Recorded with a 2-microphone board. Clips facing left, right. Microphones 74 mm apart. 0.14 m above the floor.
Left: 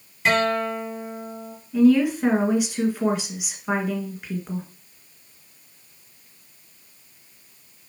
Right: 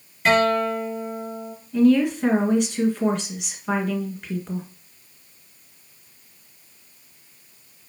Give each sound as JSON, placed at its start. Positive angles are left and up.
{"t": 0.2, "sound": "a guitar", "side_deg": 0, "distance_m": 3.5}
{"t": 1.7, "sound": "a woman speaking", "side_deg": 10, "distance_m": 1.9}